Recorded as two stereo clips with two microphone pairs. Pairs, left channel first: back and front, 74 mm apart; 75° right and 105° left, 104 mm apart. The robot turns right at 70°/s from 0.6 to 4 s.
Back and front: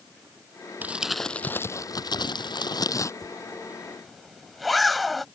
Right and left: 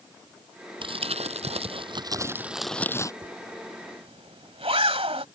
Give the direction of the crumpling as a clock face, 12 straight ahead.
10 o'clock.